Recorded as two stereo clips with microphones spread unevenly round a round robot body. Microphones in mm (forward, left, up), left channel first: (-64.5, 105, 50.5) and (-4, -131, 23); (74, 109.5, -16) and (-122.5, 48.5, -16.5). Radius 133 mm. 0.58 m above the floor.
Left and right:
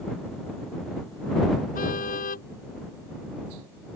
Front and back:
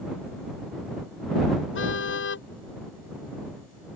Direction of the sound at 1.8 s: 45° left.